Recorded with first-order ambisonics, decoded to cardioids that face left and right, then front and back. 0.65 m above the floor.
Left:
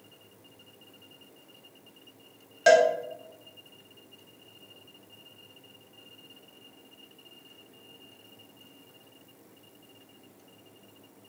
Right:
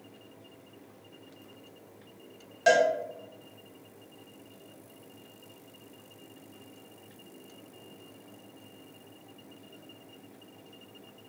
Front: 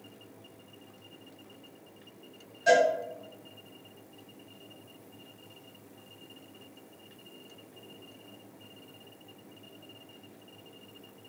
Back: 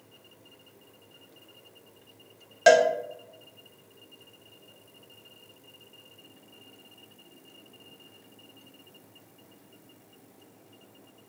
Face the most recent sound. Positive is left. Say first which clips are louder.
# left 3 dB, back 4 dB
turn(degrees=165)